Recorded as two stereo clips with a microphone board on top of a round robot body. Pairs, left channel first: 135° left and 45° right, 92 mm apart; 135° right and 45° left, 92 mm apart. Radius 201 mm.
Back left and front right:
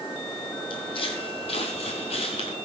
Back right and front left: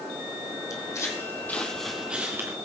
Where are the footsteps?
170° left, 1.7 m; by 2.5 s 105° left, 1.1 m.